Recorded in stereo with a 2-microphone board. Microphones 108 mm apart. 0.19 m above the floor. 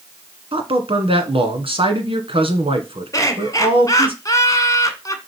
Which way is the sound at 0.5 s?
55° right (ahead or behind).